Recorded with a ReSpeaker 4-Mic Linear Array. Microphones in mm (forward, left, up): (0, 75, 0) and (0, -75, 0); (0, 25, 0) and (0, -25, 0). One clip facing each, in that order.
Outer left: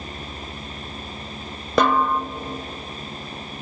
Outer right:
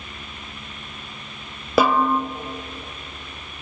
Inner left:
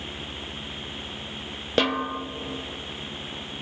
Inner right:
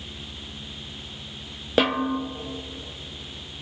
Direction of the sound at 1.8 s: 5° right (ahead or behind).